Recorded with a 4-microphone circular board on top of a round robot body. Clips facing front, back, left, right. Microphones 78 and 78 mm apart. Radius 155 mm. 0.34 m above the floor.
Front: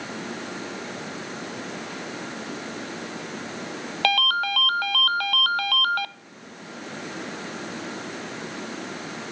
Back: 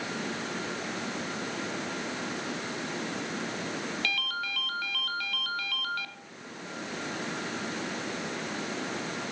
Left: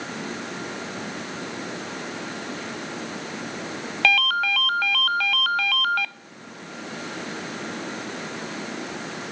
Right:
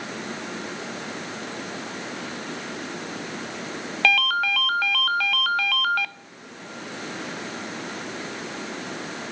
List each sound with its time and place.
4.0 s a ringtone: straight ahead, 0.6 m